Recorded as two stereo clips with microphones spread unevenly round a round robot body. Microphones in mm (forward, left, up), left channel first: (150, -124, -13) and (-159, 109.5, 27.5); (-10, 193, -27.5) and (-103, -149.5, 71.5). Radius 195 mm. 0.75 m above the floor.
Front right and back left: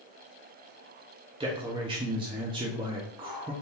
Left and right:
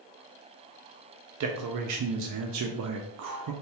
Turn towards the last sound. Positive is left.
turn(degrees=-140)